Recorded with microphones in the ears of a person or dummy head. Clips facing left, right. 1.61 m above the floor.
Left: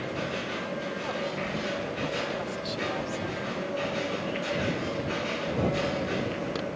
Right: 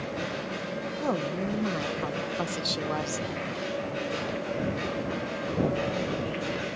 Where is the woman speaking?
70° right (ahead or behind).